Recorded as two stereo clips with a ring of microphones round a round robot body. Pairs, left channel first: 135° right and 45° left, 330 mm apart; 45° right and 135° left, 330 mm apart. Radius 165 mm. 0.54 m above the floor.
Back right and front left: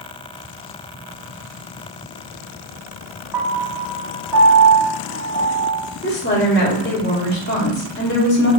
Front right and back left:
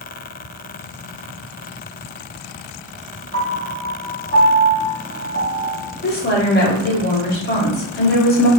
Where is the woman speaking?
90° right, 0.8 m.